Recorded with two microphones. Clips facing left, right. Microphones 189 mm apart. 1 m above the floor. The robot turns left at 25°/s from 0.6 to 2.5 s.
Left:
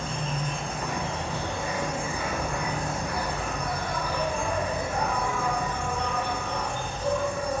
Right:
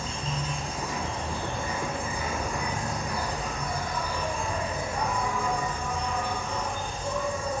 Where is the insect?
115° left, 0.8 m; by 7.6 s 70° left, 0.8 m.